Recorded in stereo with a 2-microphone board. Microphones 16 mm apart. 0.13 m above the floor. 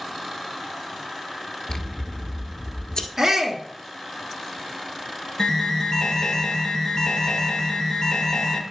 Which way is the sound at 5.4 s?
45° left (ahead or behind).